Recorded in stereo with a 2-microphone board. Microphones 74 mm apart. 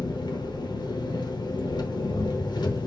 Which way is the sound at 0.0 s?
85° left.